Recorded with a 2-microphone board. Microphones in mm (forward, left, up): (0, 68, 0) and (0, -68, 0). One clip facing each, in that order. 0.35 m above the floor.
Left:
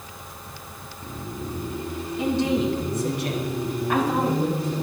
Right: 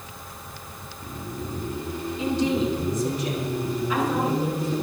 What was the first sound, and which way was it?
A woman speaking, 65° left (ahead or behind).